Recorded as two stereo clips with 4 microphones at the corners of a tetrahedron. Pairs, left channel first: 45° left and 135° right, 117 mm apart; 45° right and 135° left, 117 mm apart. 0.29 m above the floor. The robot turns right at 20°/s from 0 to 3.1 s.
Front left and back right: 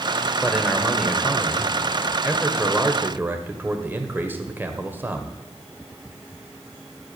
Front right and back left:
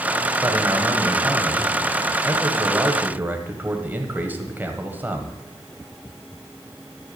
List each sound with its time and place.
0.4 s a man speaking: 125° left, 1.3 m; by 5.4 s straight behind, 1.3 m